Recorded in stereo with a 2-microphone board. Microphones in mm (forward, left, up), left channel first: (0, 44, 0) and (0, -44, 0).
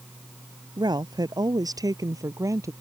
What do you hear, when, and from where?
0.8 s a woman speaking: 55° right (ahead or behind); by 2.7 s 35° right (ahead or behind)